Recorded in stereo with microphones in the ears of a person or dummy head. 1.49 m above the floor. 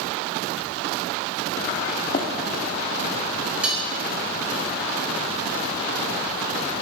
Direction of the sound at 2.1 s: 45° left (ahead or behind).